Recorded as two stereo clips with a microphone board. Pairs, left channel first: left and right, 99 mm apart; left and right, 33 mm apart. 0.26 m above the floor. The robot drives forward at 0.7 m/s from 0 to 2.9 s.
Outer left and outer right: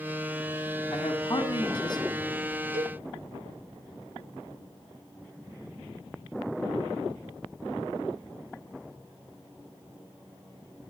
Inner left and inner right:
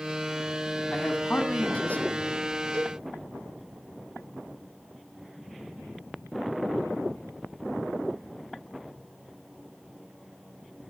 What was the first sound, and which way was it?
A man speaking, 55° left (ahead or behind).